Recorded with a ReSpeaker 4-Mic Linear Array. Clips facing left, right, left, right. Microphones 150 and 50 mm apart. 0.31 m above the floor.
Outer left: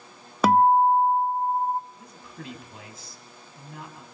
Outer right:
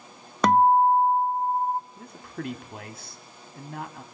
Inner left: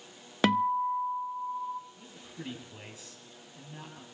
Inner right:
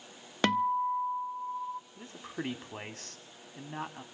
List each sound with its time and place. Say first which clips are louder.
0.4 s a guitar: even, inner left 2 dB; 5° left (ahead or behind), 0.5 m
2.0 s a man speaking: outer right 6 dB, inner right 6 dB; 60° right (ahead or behind), 2 m